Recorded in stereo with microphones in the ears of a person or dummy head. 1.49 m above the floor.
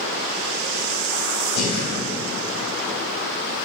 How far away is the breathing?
About 2.0 m.